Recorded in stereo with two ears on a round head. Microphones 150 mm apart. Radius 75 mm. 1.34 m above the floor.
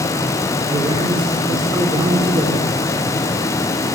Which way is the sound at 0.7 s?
30° right (ahead or behind).